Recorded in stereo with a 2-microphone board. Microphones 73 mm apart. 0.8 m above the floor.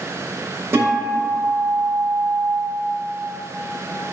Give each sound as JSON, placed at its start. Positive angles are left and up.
{"t": 0.7, "sound": "a guitar", "side_deg": -35, "distance_m": 1.1}